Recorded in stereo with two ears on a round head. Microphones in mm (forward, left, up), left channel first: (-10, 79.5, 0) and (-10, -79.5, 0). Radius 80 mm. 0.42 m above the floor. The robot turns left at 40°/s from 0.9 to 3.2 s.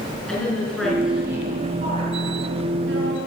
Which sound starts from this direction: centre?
A woman speaking, at 0.3 s.